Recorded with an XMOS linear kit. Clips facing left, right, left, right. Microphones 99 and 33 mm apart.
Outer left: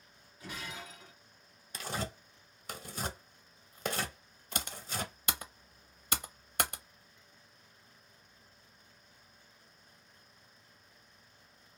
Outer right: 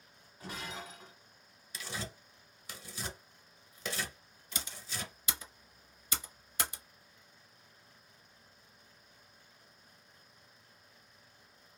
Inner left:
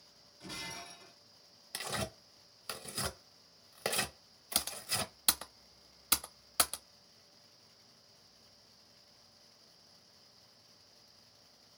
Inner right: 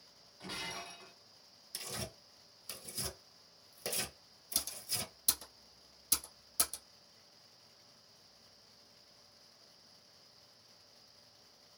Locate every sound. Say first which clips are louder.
0.4 s breaking glass: outer right 1 dB, inner right 2 dB; 40° right (ahead or behind), 1.4 m
1.7 s tearing paper: outer left 5 dB, inner left 6 dB; 50° left (ahead or behind), 0.6 m
4.5 s typing on a keyboard: outer left 5 dB, inner left 5 dB; 60° left (ahead or behind), 0.5 m